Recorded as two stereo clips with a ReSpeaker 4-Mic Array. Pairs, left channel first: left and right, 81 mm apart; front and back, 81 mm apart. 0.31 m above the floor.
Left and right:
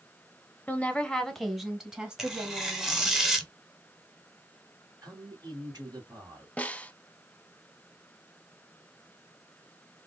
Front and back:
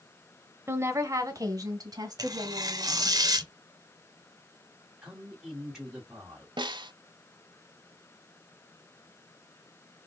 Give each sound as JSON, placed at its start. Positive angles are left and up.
{"t": 0.7, "sound": "a woman speaking", "azimuth_deg": 145, "distance_m": 1.0}
{"t": 2.2, "sound": "tearing paper", "azimuth_deg": -175, "distance_m": 0.8}
{"t": 5.0, "sound": "a man speaking", "azimuth_deg": -95, "distance_m": 1.8}
{"t": 6.6, "sound": "a snare drum", "azimuth_deg": 165, "distance_m": 0.5}